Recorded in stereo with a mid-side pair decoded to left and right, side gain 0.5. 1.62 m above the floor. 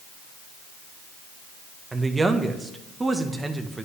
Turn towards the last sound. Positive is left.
turn(degrees=-20)